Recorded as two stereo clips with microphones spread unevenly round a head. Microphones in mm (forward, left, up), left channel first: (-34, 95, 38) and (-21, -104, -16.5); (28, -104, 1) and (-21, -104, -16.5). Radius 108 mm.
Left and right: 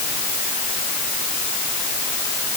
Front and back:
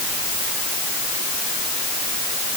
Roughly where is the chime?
No chime in this recording.